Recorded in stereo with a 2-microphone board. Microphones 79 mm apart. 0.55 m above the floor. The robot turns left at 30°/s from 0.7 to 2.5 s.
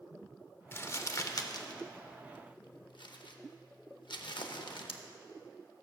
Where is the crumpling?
30° left (ahead or behind), 0.6 m; by 5.0 s 80° left, 0.6 m.